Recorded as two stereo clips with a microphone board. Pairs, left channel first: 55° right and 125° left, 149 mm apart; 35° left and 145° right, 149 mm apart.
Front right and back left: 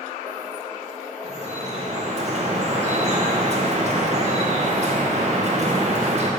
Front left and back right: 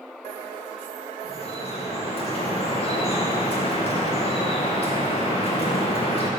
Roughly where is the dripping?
Left.